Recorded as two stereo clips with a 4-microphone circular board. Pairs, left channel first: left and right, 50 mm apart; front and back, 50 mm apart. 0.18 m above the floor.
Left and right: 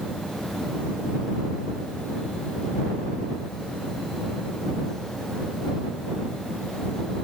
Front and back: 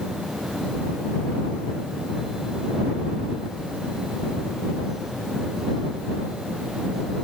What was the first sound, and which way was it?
Only background noise.